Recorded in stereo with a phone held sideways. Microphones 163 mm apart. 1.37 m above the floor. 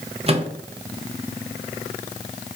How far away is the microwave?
About 0.7 m.